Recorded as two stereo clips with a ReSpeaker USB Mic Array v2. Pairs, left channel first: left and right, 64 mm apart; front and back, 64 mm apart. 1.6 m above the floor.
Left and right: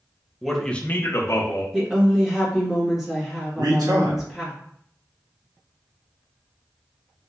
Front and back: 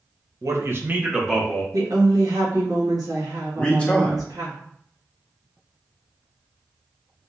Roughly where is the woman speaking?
Behind.